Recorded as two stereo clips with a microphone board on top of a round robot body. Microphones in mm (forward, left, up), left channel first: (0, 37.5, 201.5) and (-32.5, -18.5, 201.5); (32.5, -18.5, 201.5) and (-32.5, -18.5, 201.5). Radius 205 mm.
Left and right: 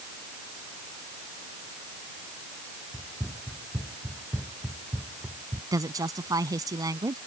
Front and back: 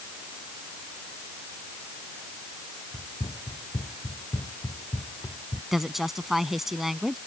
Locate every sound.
2.9 s running footsteps: 35° right; by 5.6 s 50° right
5.7 s a woman speaking: 95° right